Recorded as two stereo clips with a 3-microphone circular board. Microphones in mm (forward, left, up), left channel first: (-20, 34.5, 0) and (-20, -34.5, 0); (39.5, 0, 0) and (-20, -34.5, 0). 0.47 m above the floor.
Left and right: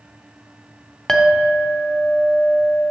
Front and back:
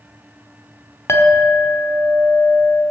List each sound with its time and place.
1.1 s a clink: 10° left, 0.8 m